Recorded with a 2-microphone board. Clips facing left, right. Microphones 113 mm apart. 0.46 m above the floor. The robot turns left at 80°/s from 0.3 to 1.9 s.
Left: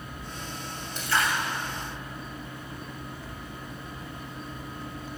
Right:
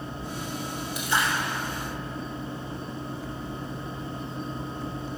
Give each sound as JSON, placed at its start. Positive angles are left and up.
{"t": 0.9, "sound": "a splash", "azimuth_deg": -10, "distance_m": 2.5}